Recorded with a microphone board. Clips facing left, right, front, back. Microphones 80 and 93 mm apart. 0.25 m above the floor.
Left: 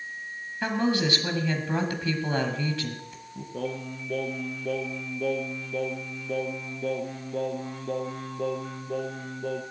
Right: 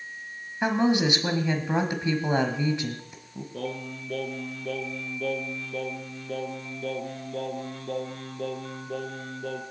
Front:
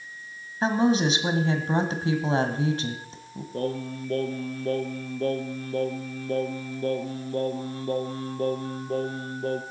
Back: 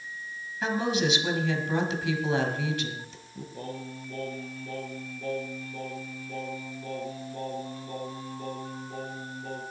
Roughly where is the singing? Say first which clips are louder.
Left 2 dB, front 10 dB; ahead.